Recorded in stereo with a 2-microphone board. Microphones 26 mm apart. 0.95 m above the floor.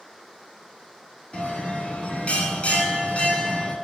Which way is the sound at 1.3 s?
55° left (ahead or behind).